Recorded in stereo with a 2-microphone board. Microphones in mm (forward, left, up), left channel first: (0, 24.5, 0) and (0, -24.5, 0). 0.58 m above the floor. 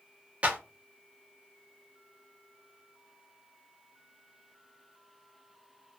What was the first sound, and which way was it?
A clap, 25° right (ahead or behind).